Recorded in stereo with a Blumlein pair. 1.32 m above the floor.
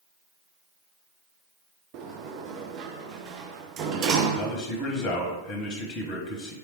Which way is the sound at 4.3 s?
30° left.